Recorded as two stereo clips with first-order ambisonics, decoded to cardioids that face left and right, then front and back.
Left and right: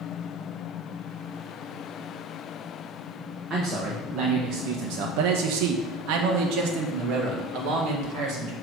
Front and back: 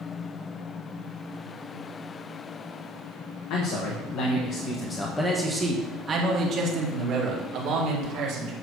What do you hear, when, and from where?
3.5 s a man speaking: 25° right, 1.2 m; by 8.5 s 140° right, 2 m